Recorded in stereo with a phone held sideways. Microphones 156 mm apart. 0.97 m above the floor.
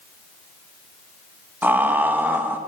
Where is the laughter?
10° right (ahead or behind), 1.2 m.